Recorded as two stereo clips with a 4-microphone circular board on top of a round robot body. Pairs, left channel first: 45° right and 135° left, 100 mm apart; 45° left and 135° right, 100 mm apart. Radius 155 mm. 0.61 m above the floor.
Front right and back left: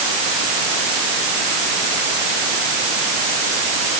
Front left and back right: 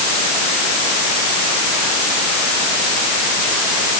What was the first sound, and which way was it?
Only background noise.